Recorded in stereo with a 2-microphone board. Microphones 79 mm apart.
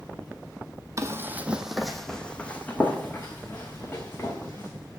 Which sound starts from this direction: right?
Running footsteps, at 1.0 s.